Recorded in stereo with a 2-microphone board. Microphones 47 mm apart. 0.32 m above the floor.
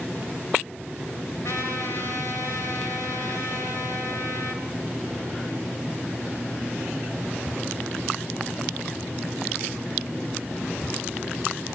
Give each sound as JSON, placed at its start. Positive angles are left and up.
{"t": 1.4, "sound": "a trumpet", "side_deg": 70, "distance_m": 4.5}